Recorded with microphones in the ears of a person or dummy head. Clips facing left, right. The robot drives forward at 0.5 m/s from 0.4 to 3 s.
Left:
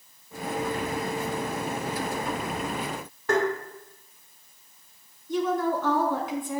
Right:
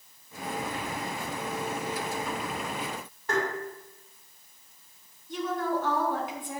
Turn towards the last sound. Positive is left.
turn(degrees=80)